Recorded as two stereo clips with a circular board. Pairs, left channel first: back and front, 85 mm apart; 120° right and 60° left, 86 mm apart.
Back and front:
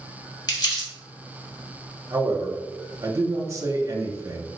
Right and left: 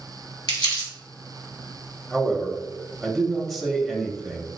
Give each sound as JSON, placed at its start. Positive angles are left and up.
{"t": 0.5, "sound": "crumpling", "azimuth_deg": -140, "distance_m": 2.5}
{"t": 2.1, "sound": "a man speaking", "azimuth_deg": -30, "distance_m": 0.8}